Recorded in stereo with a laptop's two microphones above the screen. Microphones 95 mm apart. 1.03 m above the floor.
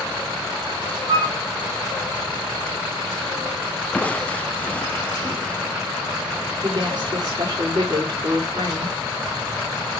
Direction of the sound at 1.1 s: 55° right (ahead or behind).